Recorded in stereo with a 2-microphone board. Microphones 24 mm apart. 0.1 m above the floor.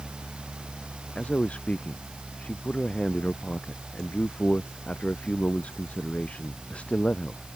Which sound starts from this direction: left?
A man speaking, at 1.1 s.